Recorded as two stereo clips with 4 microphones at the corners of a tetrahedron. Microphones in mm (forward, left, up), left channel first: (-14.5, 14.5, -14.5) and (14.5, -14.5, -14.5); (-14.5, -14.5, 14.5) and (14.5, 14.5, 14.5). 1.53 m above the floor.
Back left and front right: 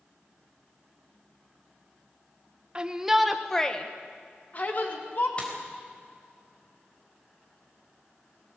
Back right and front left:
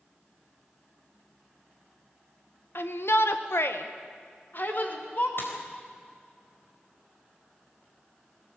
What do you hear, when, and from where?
2.8 s a shout: 110° right, 1.5 m; by 5.3 s straight behind, 3 m
5.4 s a dropped coin: 160° right, 4 m